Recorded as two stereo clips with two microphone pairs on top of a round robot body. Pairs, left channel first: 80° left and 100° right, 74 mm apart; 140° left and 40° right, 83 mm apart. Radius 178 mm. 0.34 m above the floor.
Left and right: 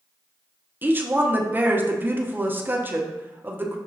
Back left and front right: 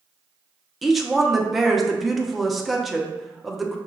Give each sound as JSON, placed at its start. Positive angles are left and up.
{"t": 0.8, "sound": "a woman speaking", "azimuth_deg": -125, "distance_m": 0.9}